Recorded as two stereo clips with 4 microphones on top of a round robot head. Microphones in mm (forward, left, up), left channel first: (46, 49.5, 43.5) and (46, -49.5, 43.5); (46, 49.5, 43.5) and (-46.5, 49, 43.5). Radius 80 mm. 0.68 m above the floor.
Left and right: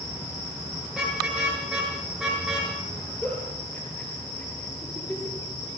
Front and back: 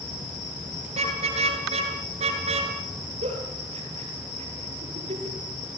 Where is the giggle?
170° left, 5.5 m.